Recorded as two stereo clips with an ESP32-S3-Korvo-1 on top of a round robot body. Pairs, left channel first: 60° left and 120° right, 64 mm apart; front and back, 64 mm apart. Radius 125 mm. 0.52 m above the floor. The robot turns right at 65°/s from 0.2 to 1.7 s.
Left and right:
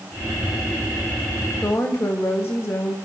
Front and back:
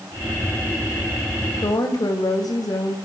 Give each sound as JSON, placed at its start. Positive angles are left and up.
{"t": 1.6, "sound": "a woman speaking", "azimuth_deg": 5, "distance_m": 3.5}